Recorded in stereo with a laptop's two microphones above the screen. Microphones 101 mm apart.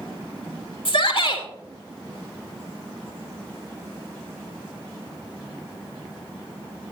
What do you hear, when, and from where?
0.8 s a shout: 65° left (ahead or behind), 2.5 m